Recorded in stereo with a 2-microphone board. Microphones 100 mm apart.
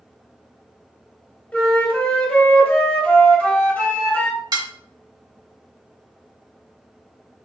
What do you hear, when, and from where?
1.5 s a flute: 15° left (ahead or behind), 1.2 m
4.5 s dishes clattering: 45° right (ahead or behind), 0.8 m